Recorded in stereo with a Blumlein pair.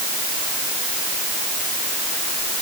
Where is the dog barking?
No dog barking in this recording.